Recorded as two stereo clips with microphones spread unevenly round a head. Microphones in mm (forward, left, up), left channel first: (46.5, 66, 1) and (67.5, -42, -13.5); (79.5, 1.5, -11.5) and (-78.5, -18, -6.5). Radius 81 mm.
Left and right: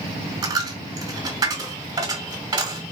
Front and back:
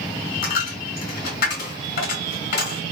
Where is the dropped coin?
25° right, 2 m.